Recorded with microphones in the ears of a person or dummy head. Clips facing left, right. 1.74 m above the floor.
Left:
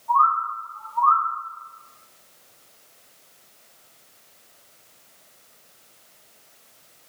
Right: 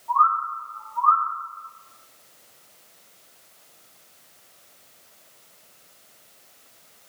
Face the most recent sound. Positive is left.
turn(degrees=-35)  # may be behind; listen again after turning